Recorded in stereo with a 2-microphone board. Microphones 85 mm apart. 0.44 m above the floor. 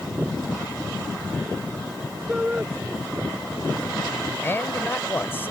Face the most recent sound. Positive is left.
turn(degrees=25)  # may be behind; listen again after turning